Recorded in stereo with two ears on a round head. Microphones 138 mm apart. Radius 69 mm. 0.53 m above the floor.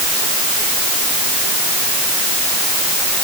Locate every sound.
Only background noise.